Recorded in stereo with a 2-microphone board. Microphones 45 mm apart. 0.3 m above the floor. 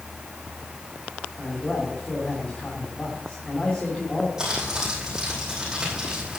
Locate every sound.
1.4 s a man speaking: 25° left (ahead or behind), 3 m
4.4 s crumpling: 10° right (ahead or behind), 5 m